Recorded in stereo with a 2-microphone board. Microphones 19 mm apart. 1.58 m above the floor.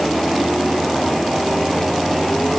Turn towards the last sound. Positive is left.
No sound to turn to.